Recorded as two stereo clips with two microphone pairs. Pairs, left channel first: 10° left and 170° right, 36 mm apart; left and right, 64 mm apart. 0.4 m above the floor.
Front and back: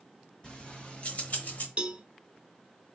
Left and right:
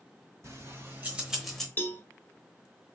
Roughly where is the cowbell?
Behind left.